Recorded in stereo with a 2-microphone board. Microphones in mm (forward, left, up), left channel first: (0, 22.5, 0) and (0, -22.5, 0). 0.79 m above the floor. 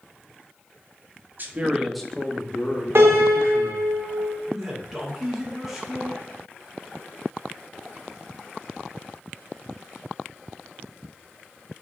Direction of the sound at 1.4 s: 45° right (ahead or behind).